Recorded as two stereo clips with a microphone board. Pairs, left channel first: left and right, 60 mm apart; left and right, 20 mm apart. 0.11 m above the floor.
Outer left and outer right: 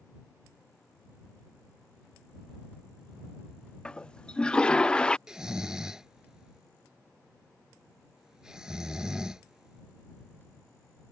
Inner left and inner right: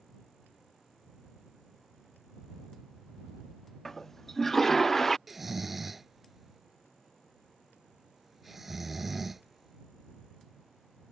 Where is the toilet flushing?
15° left (ahead or behind).